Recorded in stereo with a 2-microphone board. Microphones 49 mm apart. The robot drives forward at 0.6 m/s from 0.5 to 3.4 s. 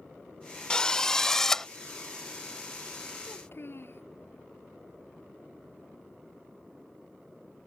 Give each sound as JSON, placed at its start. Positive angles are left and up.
{"t": 0.7, "sound": "a drill", "side_deg": 20}
{"t": 3.2, "sound": "a child speaking", "side_deg": 50}